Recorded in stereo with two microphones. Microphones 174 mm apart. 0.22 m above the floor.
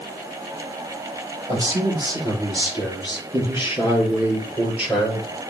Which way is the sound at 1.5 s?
25° right (ahead or behind).